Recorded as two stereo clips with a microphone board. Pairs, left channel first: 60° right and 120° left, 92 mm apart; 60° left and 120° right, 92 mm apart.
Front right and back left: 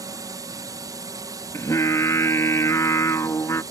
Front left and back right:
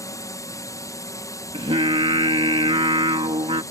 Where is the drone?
95° left.